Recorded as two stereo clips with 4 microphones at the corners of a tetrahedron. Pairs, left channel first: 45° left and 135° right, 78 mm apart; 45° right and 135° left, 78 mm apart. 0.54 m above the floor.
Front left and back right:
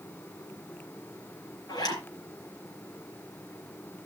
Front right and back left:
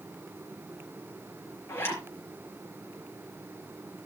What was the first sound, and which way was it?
A zipper, 10° left.